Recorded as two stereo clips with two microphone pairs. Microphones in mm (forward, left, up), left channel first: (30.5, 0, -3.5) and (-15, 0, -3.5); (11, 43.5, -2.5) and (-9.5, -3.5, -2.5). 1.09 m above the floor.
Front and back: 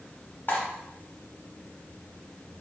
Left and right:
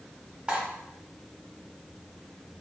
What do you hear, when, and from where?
0.5 s cutlery clinking: 45° right, 0.9 m